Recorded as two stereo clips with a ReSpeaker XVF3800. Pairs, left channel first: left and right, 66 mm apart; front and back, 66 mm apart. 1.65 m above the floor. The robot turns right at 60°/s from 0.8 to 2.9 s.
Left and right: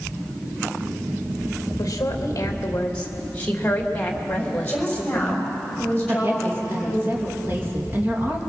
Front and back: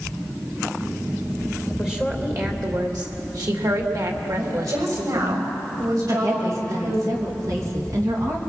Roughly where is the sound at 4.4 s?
Behind.